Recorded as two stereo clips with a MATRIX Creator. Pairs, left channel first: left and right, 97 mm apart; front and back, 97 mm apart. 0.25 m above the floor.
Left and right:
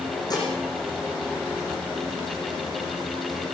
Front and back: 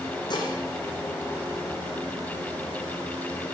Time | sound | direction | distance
0.3 | dishes clattering | 40° left | 9.5 m